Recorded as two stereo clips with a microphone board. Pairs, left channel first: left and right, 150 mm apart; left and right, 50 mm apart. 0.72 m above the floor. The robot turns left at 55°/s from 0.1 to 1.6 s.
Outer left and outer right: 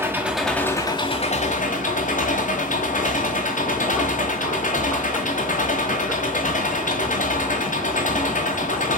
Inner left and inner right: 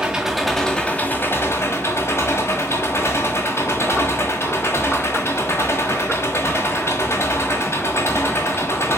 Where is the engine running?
165° right, 1.6 m; by 9.0 s 115° left, 1.6 m.